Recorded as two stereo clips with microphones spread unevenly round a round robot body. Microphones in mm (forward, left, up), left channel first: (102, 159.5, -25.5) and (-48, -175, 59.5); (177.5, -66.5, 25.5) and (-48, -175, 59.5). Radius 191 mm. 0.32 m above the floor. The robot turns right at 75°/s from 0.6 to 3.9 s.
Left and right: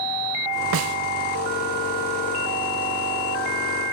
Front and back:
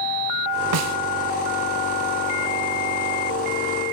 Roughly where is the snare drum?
Behind.